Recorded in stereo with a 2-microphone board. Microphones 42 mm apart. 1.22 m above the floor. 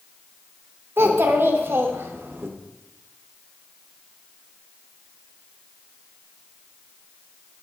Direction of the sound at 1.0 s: 60° right (ahead or behind).